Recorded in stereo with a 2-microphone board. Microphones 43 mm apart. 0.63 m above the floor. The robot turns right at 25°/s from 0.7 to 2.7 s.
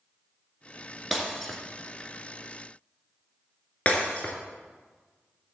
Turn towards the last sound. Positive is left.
turn(degrees=30)  # may be behind; listen again after turning